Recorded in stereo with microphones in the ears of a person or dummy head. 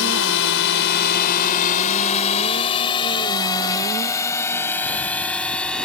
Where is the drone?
75° left (ahead or behind); by 5.8 s 5° left (ahead or behind).